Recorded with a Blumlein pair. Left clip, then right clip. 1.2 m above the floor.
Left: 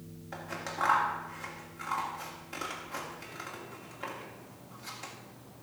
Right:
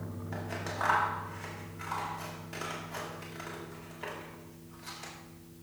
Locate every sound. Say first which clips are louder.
0.3 s scissors: even; 5° left, 1.9 m